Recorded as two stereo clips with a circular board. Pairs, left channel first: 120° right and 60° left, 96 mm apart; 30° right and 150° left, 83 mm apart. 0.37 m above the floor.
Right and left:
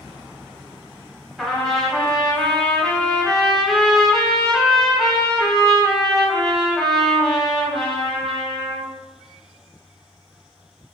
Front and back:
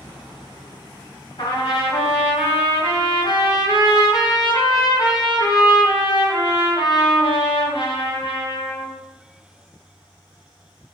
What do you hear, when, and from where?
1.4 s a trumpet: 30° right, 1.0 m